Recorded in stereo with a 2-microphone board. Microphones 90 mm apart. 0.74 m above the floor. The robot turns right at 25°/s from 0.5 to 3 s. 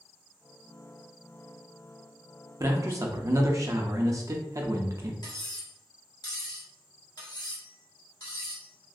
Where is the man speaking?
35° right (ahead or behind), 0.5 m.